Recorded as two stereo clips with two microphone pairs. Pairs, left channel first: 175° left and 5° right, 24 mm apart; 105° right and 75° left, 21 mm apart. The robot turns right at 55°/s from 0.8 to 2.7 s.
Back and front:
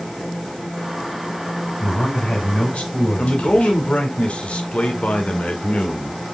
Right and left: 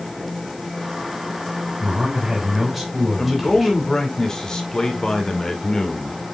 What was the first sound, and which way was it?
A man speaking, 105° left.